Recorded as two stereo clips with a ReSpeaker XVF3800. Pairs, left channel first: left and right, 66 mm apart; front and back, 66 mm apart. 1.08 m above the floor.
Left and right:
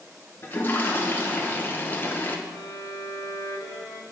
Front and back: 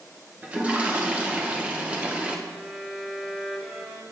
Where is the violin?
100° left, 1.6 m.